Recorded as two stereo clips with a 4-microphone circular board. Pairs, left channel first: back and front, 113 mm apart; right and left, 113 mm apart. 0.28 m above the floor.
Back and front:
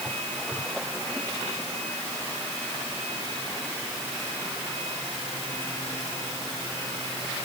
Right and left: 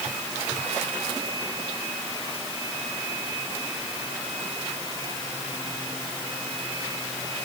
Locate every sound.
Only background noise.